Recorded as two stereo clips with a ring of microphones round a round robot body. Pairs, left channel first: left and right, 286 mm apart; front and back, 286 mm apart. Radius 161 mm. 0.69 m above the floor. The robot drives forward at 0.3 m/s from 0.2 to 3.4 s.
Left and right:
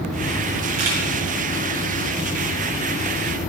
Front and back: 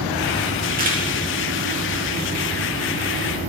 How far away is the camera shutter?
About 4.5 m.